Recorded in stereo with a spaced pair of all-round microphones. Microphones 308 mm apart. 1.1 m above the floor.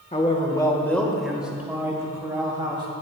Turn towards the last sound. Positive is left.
turn(degrees=-15)  # may be behind; listen again after turning